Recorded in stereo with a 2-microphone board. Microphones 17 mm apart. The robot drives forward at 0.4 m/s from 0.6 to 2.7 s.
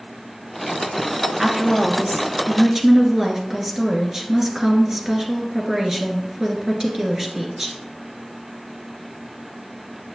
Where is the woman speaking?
45° right (ahead or behind), 1.8 m; by 7.8 s 40° right (ahead or behind), 2 m.